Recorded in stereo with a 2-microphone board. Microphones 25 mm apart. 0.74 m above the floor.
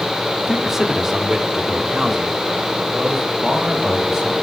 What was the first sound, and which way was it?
A man speaking, 20° right (ahead or behind).